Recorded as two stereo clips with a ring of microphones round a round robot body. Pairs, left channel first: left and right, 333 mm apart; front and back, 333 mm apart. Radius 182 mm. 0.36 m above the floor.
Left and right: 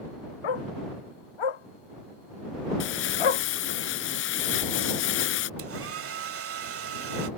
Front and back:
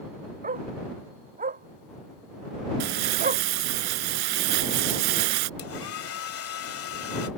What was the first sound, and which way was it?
A dog barking, 110° left.